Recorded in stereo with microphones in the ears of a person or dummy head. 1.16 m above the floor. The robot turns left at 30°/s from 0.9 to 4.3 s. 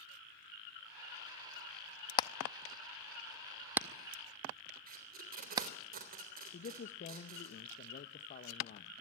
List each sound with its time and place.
2.2 s hammering: 25° left (ahead or behind), 0.6 m; by 5.7 s 20° right (ahead or behind), 0.6 m
4.9 s tape being pulled: 45° right (ahead or behind), 3.5 m
6.5 s a man speaking: 45° left (ahead or behind), 1.1 m